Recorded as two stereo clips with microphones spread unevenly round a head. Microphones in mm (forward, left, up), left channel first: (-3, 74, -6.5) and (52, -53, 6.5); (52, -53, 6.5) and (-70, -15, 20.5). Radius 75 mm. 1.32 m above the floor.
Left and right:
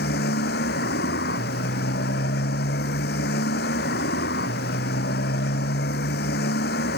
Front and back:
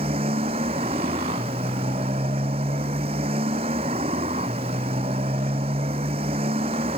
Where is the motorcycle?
105° left.